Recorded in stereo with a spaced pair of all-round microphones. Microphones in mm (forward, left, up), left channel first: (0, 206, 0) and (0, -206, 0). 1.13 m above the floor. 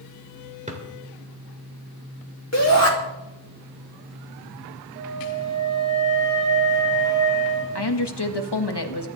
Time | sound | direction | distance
0.7 | a drawer | 15° right (ahead or behind) | 2.5 m
2.5 | a shout | 40° left (ahead or behind) | 2.5 m
5.0 | a flute | 45° right (ahead or behind) | 5 m
7.8 | a woman speaking | 70° left (ahead or behind) | 1.6 m